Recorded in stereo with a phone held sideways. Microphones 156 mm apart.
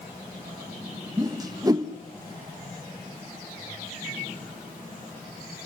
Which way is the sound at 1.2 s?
25° right (ahead or behind).